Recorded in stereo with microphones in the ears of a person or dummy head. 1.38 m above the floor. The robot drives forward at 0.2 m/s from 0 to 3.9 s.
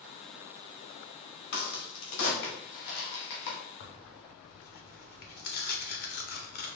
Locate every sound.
1.5 s a crack: 60° left (ahead or behind), 1.5 m; by 3.6 s 50° left (ahead or behind), 1.6 m
3.8 s tearing paper: 45° left (ahead or behind), 0.7 m